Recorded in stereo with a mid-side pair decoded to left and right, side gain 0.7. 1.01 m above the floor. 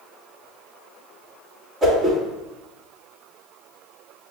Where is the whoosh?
25° right, 1.4 m.